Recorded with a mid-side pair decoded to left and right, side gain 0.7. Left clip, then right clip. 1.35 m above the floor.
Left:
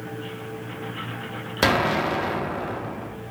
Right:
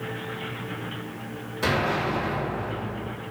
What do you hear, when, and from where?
1.6 s an explosion: 55° left, 0.9 m